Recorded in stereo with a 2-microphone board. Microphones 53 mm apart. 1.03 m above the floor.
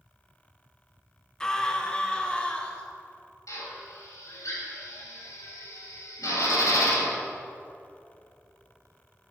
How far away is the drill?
About 4 m.